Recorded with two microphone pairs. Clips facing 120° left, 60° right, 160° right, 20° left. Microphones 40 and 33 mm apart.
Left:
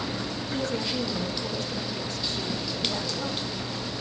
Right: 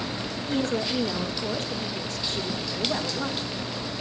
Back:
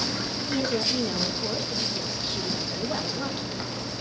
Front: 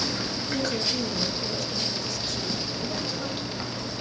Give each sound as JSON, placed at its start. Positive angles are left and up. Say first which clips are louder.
{"t": 0.5, "sound": "a woman speaking", "louder": "right 4 dB, back 2 dB", "azimuth_deg": -100, "distance_m": 2.5}